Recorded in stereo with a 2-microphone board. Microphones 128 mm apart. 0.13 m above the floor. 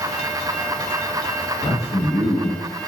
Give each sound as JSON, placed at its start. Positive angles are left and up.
{"t": 1.6, "sound": "a man speaking", "side_deg": 50, "distance_m": 1.6}